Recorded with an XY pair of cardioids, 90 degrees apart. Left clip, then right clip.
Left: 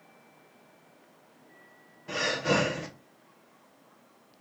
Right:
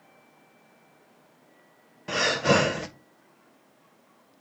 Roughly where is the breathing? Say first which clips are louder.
Right 5 dB; right.